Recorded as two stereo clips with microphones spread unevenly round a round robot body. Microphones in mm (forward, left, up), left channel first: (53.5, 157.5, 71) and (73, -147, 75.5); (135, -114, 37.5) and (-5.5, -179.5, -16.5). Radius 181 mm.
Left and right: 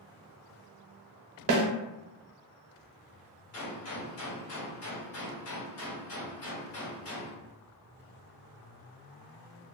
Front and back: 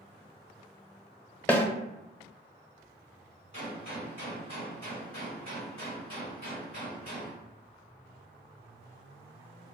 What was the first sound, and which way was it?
A snare drum, 65° right.